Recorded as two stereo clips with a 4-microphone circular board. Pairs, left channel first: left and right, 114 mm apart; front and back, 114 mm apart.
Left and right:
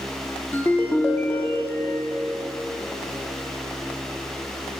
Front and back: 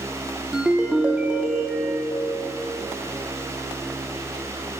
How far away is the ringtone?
About 0.7 m.